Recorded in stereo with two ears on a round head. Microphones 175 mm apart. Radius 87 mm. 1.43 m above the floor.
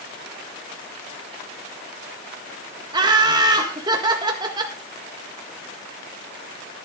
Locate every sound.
2.9 s laughter: 20° right (ahead or behind), 1.6 m